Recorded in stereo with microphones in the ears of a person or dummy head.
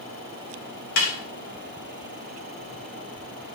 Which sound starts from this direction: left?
A snare drum, at 1.0 s.